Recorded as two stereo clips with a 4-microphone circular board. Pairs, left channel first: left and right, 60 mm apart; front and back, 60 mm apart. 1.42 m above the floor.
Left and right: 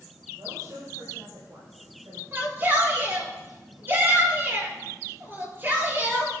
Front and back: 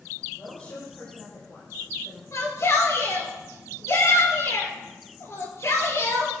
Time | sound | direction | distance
0.4 | a woman speaking | 55° right | 7 m
2.3 | a shout | 35° right | 4.5 m